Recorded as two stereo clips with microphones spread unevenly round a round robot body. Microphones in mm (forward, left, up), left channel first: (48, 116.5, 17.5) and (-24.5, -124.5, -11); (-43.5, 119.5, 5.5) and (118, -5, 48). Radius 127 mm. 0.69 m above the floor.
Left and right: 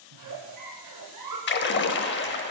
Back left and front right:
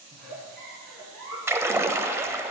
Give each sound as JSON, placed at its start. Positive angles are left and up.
{"t": 0.1, "sound": "a giggle", "azimuth_deg": -90, "distance_m": 1.9}
{"t": 1.5, "sound": "a splash", "azimuth_deg": 35, "distance_m": 0.7}